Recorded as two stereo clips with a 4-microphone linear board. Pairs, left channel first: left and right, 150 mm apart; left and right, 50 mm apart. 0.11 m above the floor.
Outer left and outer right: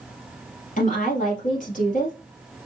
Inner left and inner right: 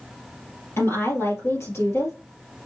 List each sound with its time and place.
0.8 s a woman speaking: 60° left (ahead or behind), 2 m